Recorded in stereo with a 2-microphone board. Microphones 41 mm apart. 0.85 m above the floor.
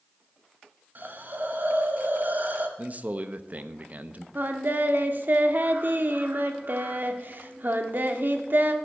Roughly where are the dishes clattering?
No dishes clattering in this recording.